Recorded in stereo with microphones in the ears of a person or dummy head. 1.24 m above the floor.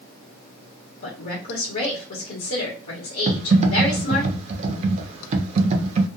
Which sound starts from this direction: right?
Typing on a keyboard, at 3.3 s.